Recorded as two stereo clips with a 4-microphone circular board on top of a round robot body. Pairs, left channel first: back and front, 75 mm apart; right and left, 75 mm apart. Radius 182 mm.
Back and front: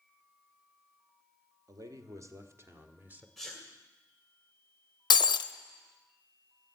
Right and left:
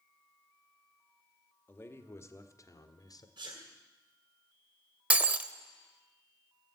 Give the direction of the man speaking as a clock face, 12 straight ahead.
1 o'clock.